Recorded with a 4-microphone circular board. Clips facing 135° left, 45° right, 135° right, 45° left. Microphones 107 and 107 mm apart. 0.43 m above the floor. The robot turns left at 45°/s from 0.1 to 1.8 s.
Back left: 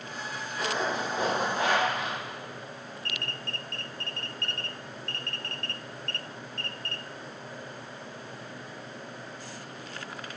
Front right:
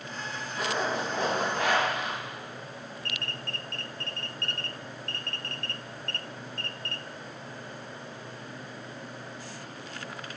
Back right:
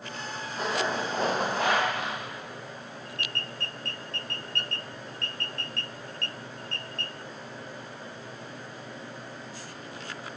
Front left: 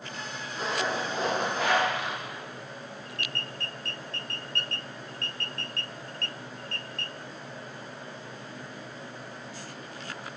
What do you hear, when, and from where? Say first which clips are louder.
0.6 s a zipper: even, back right 1 dB; 120° right, 3.5 m; by 2.2 s 175° right, 3.5 m